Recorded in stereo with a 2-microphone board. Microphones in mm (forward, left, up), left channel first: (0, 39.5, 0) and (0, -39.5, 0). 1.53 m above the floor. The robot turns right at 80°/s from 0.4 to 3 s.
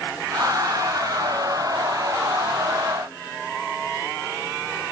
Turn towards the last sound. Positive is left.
No sound to turn to.